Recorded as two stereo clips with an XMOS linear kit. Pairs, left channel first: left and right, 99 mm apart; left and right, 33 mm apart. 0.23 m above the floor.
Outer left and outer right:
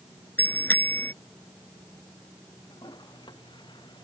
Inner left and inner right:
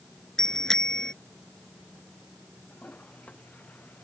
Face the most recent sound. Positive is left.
turn(degrees=50)  # may be behind; listen again after turning